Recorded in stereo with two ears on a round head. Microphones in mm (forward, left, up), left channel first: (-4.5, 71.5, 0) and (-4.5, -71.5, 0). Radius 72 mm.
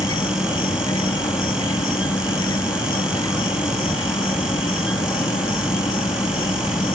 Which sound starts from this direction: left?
An insect, at 0.0 s.